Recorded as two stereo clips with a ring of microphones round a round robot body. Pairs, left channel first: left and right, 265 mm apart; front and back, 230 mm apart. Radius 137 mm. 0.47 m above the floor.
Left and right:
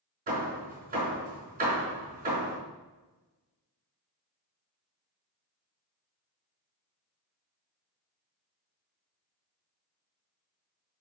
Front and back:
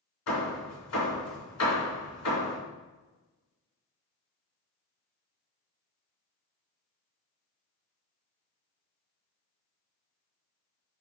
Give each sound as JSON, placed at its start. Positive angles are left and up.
{"t": 0.3, "sound": "hammering", "azimuth_deg": -30, "distance_m": 3.5}